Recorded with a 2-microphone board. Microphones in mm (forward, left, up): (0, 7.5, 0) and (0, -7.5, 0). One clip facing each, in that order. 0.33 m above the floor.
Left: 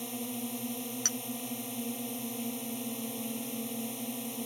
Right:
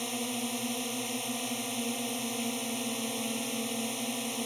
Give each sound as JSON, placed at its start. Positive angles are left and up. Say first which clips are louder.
{"t": 0.0, "sound": "a drone", "louder": "right 4 dB", "side_deg": -35}
{"t": 1.1, "sound": "a clink", "louder": "left 4 dB", "side_deg": 75}